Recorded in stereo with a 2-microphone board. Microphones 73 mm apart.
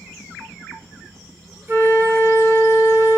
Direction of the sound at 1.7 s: 35° right (ahead or behind).